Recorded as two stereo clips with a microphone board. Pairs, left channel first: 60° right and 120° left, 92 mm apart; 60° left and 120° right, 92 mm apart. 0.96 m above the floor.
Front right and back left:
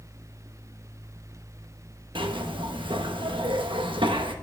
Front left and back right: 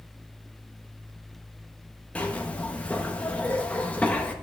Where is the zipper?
135° left, 0.9 m.